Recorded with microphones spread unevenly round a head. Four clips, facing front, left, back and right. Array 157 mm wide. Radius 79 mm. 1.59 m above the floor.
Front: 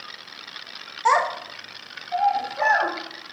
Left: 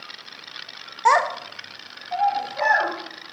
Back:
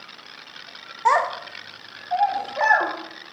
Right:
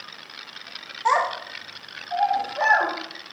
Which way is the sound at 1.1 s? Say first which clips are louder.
Left 3 dB, even; 115° left.